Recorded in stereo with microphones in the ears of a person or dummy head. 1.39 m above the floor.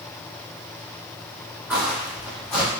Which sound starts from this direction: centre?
Footsteps, at 1.7 s.